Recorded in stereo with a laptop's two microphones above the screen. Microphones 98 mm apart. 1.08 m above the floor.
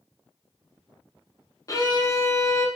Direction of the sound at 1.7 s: 35° left (ahead or behind).